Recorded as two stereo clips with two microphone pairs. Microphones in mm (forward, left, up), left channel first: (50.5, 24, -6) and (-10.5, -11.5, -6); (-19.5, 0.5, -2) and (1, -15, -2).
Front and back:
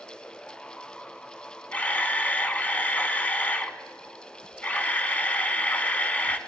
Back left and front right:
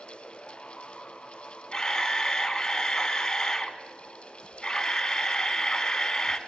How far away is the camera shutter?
About 0.7 m.